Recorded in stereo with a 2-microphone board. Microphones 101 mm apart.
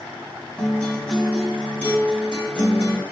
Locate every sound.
0.6 s a guitar: 10° left (ahead or behind), 1.1 m